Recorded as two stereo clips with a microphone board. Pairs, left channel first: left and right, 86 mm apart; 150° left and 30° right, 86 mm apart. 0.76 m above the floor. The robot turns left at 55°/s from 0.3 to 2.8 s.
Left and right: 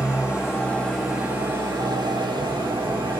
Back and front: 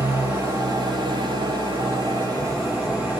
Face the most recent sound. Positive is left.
turn(degrees=-95)